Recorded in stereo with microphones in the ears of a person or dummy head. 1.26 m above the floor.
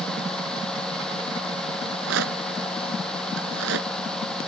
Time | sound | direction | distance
1.8 | a rattle | 75° right (ahead or behind) | ?